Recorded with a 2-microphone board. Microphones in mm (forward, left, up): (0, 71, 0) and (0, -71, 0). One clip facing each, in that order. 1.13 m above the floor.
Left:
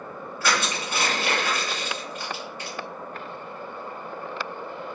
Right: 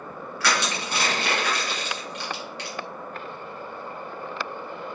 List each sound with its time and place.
0.4 s crushing: 75° right (ahead or behind), 1.6 m